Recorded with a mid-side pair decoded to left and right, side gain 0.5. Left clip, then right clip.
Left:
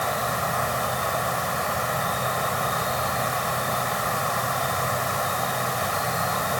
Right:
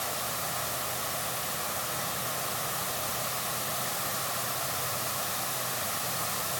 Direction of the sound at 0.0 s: 60° left.